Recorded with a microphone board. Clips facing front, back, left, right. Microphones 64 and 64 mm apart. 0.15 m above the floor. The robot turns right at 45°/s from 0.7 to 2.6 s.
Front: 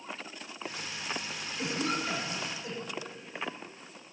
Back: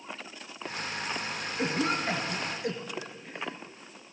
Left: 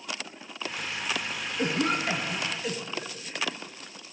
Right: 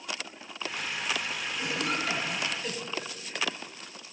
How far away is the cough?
About 2 m.